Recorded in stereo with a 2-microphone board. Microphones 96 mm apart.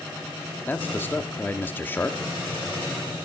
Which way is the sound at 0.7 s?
20° left (ahead or behind).